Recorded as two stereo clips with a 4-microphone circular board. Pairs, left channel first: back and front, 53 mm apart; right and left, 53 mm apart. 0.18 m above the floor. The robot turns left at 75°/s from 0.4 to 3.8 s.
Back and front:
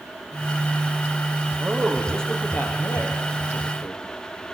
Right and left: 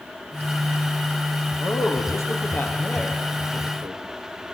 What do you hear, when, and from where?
1.6 s a man speaking: 55° right, 5 m; by 4.0 s 140° left, 5 m